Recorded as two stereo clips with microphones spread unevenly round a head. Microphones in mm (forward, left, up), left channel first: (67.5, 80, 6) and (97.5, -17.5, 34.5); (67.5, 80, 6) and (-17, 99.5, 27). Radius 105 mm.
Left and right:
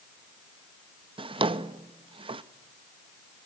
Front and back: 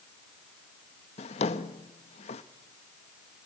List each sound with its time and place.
1.2 s a drawer: 45° right, 0.8 m